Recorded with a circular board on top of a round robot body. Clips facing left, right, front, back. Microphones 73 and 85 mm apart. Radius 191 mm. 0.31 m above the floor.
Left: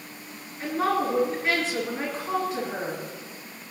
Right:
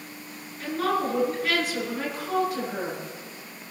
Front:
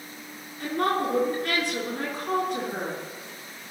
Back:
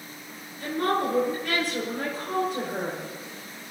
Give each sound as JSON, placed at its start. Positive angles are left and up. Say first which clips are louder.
{"t": 0.6, "sound": "a woman speaking", "louder": "left 1 dB, even", "azimuth_deg": 25, "distance_m": 7.0}